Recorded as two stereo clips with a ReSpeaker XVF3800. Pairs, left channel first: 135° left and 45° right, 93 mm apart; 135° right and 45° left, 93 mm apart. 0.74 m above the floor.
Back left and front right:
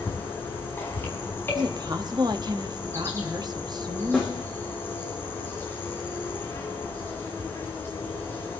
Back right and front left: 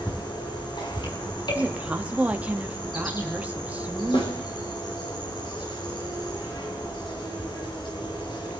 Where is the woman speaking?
25° right, 0.9 m.